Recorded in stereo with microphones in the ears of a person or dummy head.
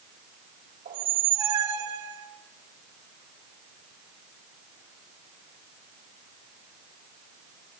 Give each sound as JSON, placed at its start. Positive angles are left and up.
{"t": 0.8, "sound": "a squeak", "side_deg": -45, "distance_m": 3.0}